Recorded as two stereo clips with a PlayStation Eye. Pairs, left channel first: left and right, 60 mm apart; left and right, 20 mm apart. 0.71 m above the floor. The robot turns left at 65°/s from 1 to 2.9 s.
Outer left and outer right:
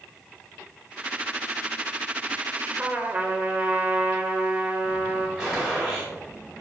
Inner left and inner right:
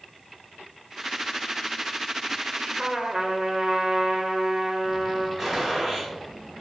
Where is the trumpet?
30° right (ahead or behind), 0.5 m; by 5.3 s 25° right (ahead or behind), 0.5 m.